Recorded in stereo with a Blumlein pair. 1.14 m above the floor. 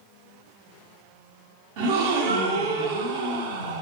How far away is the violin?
No violin in this recording.